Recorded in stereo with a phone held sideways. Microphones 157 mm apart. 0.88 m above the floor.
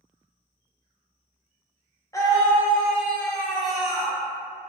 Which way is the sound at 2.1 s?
20° left (ahead or behind).